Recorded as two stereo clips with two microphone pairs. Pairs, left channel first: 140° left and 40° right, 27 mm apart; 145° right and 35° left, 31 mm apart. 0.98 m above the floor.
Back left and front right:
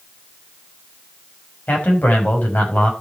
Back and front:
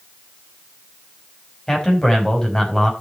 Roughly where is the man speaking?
Behind left.